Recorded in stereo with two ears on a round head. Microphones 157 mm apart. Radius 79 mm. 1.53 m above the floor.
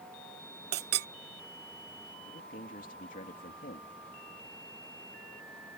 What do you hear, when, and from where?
0.7 s a clink: 60° right (ahead or behind)
2.2 s a man speaking: 45° left (ahead or behind)